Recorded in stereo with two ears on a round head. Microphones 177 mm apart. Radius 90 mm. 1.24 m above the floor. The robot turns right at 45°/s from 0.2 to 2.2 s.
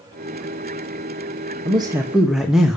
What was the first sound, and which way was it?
A man speaking, 30° right (ahead or behind).